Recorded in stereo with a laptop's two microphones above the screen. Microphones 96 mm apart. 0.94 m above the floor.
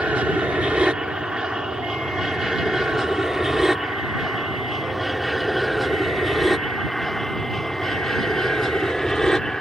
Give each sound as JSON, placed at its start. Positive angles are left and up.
{"t": 0.0, "sound": "an aircraft", "side_deg": -10}